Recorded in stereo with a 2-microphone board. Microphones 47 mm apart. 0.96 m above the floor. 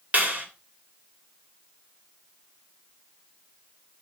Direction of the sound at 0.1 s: 30° right (ahead or behind).